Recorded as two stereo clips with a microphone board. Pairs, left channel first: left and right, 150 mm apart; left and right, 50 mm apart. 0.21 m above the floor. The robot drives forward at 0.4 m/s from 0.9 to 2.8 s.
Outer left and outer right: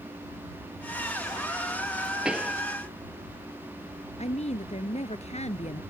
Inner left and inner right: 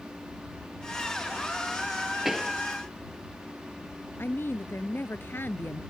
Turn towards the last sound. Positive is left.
turn(degrees=45)  # may be behind; listen again after turning